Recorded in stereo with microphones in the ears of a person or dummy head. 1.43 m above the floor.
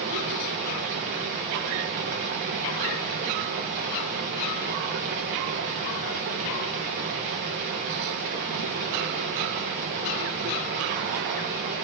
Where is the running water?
40° right (ahead or behind), 0.9 m.